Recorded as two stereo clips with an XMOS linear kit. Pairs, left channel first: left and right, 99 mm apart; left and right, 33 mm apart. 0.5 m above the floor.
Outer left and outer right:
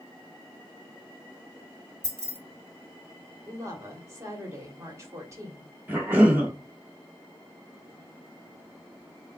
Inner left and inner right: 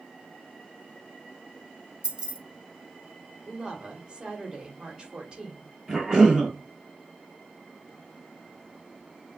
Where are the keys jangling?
25° right (ahead or behind), 1.1 m.